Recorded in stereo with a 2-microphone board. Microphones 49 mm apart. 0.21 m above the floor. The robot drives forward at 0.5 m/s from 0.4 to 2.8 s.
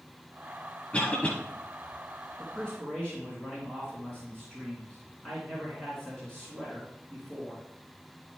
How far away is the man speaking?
About 3 m.